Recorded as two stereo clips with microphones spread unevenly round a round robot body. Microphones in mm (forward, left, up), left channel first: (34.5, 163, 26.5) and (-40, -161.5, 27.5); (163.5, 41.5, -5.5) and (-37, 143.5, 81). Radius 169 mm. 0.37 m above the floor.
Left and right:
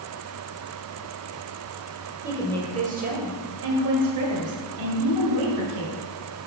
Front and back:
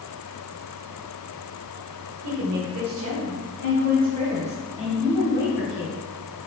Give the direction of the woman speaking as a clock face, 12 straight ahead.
6 o'clock.